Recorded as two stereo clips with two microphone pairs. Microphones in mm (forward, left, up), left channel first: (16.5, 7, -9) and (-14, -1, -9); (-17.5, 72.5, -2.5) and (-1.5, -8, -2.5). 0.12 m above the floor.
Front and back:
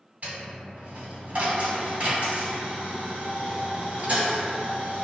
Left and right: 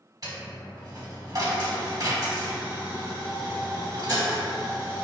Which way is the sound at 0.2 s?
120° right.